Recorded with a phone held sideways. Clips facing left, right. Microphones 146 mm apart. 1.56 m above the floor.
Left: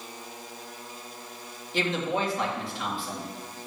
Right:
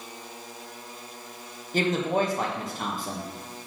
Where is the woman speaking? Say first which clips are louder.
Right 3 dB; 40° right (ahead or behind), 2 m.